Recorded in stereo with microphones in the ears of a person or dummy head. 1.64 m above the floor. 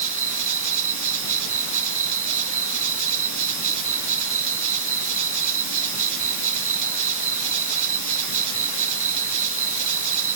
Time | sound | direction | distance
0.0 | an insect | 70° right (ahead or behind) | ?